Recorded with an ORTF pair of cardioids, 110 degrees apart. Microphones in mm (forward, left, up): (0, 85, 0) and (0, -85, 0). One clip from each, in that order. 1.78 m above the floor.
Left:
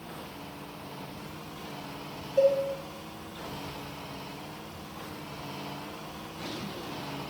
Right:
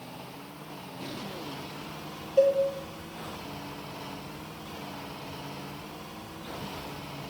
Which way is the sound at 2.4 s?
10° right.